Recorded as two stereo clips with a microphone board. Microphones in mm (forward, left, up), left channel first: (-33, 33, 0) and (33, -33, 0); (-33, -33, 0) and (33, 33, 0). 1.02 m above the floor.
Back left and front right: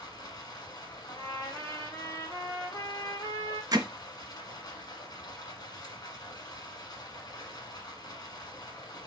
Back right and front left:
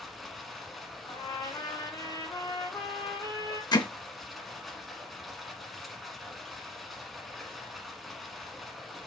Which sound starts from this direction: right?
Hammering, at 3.7 s.